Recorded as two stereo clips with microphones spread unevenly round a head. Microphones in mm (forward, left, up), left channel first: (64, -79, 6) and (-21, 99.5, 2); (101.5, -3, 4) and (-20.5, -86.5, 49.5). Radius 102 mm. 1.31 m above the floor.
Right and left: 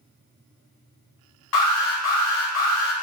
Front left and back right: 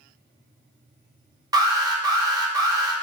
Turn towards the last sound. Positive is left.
turn(degrees=-80)